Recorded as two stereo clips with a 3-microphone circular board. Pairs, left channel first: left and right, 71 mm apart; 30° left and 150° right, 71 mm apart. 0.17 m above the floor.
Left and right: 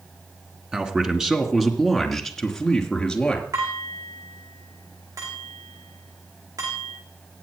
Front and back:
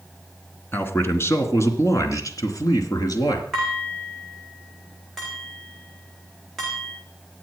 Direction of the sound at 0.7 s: 20° right.